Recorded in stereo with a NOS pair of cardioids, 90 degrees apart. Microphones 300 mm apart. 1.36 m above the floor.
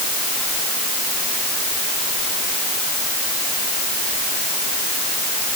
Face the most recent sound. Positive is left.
No sound to turn to.